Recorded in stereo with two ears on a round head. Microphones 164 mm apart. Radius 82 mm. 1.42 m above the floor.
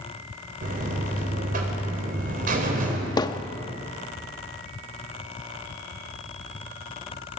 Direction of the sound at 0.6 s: 50° right (ahead or behind).